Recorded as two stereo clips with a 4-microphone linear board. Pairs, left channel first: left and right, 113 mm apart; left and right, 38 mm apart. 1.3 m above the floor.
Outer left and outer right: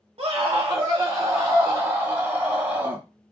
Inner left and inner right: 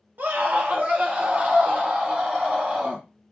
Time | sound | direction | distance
0.2 | a scream | 55° right (ahead or behind) | 1.2 m